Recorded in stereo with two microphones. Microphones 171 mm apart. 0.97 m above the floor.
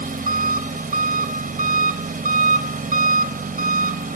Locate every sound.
0.0 s an engine running: 55° right (ahead or behind), 0.8 m